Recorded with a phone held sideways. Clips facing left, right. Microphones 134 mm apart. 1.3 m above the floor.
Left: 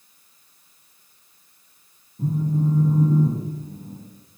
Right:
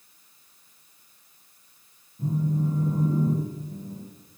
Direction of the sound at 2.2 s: 70° left (ahead or behind).